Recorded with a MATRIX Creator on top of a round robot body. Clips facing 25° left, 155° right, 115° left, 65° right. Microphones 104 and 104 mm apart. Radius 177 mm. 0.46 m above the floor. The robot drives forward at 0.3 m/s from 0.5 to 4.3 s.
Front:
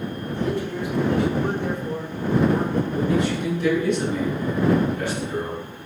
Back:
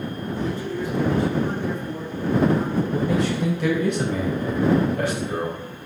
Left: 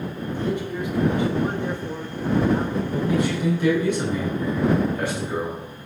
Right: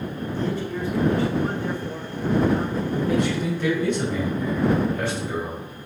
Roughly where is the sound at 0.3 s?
Ahead left.